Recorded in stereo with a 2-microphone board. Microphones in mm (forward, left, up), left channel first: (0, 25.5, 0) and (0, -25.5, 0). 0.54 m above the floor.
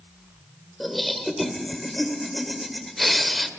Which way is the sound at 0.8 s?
Centre (ahead or behind).